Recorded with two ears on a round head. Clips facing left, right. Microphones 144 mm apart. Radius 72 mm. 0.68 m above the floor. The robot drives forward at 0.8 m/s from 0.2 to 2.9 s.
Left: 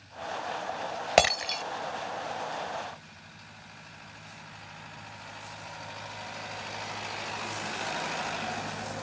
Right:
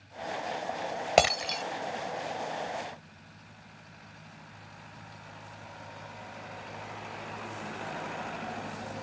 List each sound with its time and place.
1.2 s breaking glass: centre (ahead or behind)